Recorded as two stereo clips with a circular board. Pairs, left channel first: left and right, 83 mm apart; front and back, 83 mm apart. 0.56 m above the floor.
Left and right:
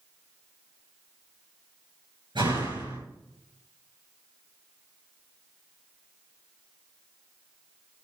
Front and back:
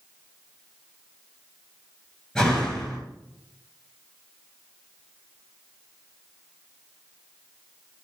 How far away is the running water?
No running water in this recording.